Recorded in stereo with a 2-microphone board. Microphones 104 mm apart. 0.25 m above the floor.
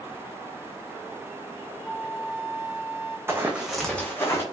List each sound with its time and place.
1.8 s a flute: centre (ahead or behind), 0.9 m
3.3 s running footsteps: 20° right (ahead or behind), 0.8 m; by 4.4 s 25° left (ahead or behind), 0.9 m